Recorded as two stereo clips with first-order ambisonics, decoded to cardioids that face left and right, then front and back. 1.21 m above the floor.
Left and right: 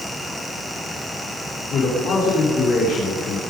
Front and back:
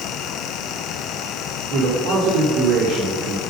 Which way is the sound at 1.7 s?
150° left.